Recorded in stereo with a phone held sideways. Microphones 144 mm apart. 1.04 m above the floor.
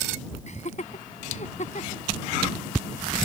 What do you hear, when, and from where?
0.5 s laughter: 55° left (ahead or behind)